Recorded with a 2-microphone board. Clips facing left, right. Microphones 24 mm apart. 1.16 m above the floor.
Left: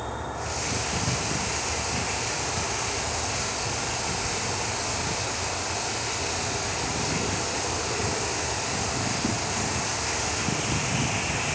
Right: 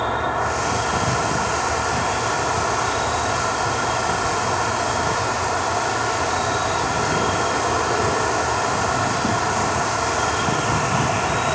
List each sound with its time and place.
0.0 s an insect: 50° right (ahead or behind), 1.6 m